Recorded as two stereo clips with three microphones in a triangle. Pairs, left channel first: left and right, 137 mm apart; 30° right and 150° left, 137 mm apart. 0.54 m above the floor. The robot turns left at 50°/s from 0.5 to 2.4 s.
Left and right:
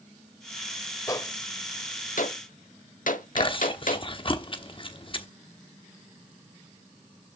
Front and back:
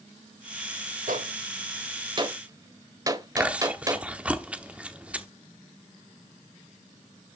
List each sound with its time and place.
1.1 s a gunshot: 155° left, 1.1 m; by 4.1 s 90° left, 1.1 m
3.4 s chewing: 75° left, 0.9 m